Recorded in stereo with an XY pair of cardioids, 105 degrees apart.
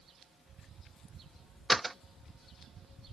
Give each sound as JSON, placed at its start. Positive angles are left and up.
{"t": 1.7, "sound": "a door slam", "azimuth_deg": -15}